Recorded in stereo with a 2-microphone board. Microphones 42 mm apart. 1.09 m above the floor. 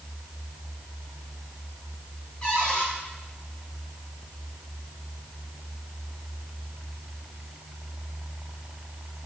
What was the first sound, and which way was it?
A cupboard door, 20° left (ahead or behind).